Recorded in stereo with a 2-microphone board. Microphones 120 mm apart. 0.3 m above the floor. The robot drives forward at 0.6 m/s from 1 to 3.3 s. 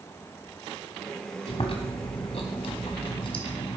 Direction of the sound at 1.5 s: 55° left (ahead or behind).